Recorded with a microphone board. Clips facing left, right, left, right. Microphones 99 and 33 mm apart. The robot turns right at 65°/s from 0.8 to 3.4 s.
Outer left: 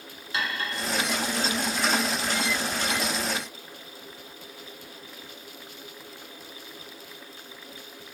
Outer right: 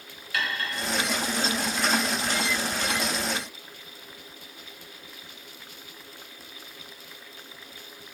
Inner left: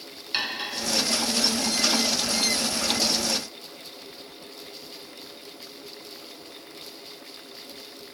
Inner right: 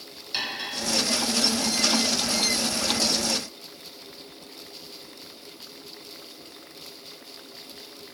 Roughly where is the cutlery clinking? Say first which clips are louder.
Even, inner left 2 dB; left.